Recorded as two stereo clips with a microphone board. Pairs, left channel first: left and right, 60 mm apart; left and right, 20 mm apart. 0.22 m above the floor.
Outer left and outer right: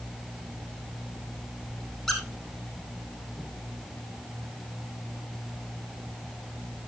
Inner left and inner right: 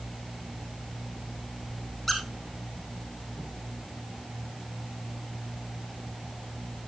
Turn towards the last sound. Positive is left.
turn(degrees=0)  # may be behind; listen again after turning